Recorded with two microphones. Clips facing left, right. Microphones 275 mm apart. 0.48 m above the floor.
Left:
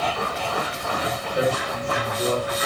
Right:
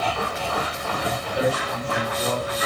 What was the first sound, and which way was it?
A man speaking, 25° left (ahead or behind).